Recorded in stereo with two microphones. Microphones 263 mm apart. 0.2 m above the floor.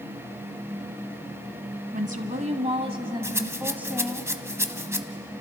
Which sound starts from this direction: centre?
A rattle, at 3.2 s.